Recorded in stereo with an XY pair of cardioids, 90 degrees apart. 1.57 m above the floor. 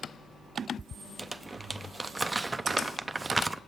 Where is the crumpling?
20° right, 0.5 m.